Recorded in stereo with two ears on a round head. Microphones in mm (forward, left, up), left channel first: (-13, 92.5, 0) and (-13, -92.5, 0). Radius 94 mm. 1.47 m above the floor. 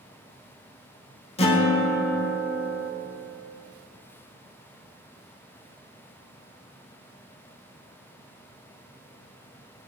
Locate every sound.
1.4 s a guitar: 30° left (ahead or behind), 0.9 m